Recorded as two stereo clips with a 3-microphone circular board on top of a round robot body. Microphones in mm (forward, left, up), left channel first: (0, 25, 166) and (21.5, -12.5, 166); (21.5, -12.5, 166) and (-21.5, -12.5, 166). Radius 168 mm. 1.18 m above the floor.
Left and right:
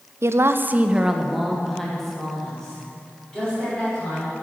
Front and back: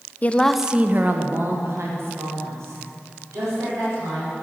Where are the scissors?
I don't hear scissors.